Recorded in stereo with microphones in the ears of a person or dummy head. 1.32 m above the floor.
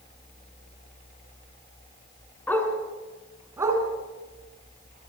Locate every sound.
2.5 s a dog barking: 10° left (ahead or behind), 4 m; by 5.1 s 45° right (ahead or behind), 5 m